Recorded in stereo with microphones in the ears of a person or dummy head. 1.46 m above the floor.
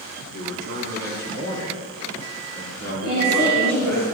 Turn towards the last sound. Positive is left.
turn(degrees=-45)  # may be behind; listen again after turning